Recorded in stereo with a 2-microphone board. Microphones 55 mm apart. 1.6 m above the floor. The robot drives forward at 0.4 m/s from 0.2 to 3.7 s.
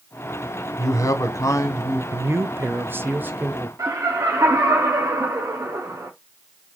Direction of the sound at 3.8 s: 85° right.